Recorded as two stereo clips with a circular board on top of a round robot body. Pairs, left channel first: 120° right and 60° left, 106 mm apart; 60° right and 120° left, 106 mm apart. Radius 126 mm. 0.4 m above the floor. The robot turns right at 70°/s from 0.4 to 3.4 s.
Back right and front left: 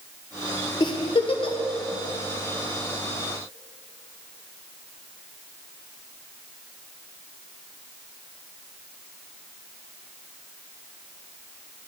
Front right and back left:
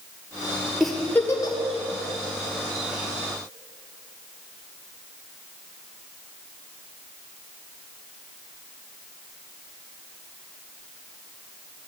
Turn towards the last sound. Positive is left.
turn(degrees=30)